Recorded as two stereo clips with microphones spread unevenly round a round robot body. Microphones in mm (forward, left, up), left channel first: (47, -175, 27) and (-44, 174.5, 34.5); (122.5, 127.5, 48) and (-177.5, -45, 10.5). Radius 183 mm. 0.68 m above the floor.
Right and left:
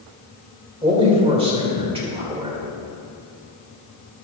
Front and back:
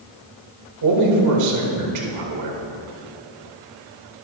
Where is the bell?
No bell in this recording.